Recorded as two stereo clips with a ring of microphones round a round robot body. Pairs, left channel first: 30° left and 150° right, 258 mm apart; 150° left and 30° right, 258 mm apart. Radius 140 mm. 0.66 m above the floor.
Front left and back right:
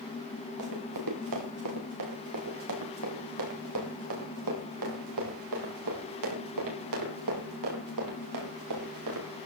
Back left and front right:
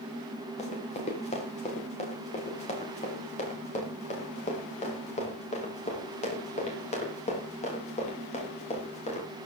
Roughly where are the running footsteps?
Behind right.